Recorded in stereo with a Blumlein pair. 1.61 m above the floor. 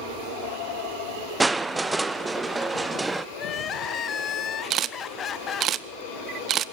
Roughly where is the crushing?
Ahead.